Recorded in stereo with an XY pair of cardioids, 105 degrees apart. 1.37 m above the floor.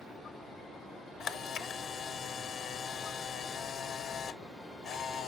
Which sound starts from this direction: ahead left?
A camera shutter, at 1.2 s.